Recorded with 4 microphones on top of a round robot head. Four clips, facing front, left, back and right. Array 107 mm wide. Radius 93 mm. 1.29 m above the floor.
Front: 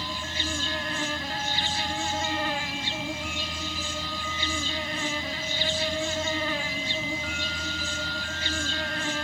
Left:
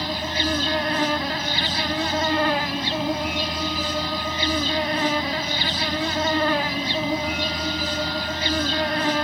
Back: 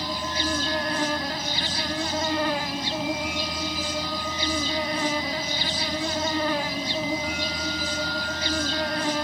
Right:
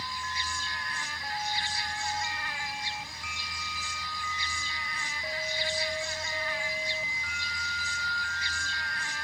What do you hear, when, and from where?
0.0 s an insect: 110° left